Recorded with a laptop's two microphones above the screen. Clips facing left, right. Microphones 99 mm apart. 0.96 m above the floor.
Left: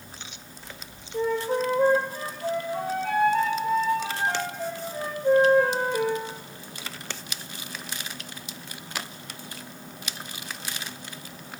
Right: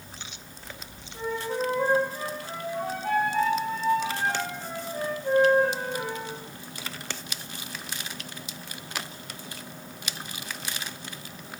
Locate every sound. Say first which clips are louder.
1.1 s a flute: left 5 dB; 85° left, 10 m